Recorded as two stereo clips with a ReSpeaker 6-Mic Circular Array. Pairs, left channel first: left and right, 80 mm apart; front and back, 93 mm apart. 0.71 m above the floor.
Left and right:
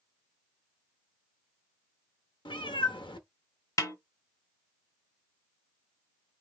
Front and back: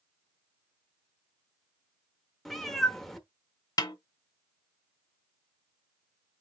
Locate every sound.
2.5 s a cat meowing: 90° left, 0.8 m
3.8 s a snare drum: 45° left, 1.0 m